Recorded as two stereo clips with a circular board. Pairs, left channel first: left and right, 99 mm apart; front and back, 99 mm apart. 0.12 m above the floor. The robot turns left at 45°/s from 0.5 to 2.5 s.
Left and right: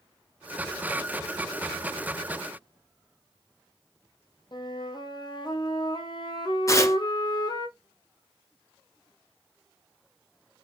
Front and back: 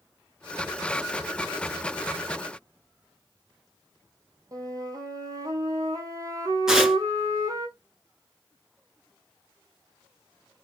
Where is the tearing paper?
100° left, 1.3 m.